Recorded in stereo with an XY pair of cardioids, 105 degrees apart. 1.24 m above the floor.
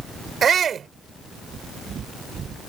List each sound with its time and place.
0.4 s a shout: 50° right